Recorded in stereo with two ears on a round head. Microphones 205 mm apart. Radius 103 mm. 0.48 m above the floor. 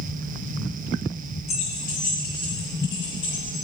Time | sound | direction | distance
1.5 | keys jangling | 30° left (ahead or behind) | 3 m